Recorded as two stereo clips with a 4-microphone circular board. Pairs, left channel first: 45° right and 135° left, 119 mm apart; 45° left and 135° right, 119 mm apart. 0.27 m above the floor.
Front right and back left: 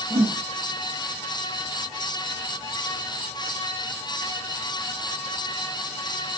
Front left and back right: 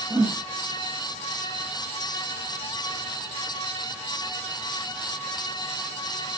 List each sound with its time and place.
0.1 s a whoosh: 175° right, 3 m